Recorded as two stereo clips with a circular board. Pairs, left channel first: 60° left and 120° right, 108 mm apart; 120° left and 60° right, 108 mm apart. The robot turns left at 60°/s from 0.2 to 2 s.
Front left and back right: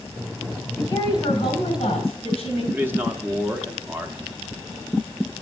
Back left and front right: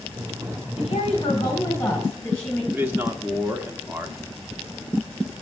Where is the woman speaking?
115° left, 2.5 m; by 2.6 s 40° left, 2.5 m.